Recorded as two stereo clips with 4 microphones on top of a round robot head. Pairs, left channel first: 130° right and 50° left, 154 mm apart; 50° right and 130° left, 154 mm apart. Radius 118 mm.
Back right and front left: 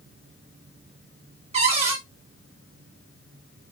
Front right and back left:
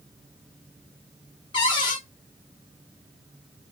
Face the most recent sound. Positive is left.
turn(degrees=5)